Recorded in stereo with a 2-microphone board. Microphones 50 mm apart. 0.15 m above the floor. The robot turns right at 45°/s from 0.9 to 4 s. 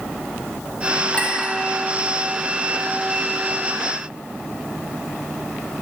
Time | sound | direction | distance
1.1 | a clink | 30° left (ahead or behind) | 1.2 m